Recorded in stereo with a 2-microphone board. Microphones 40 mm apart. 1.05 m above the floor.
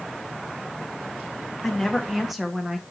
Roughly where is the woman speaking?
Centre.